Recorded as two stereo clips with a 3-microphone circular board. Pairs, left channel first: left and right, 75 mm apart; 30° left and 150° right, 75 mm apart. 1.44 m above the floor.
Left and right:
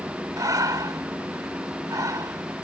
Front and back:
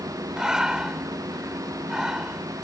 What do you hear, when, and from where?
0.4 s breathing: 70° right